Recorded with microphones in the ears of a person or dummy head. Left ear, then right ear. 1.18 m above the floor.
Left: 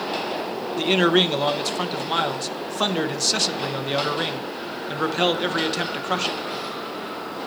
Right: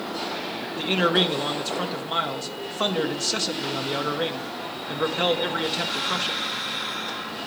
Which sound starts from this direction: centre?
A man speaking, at 0.8 s.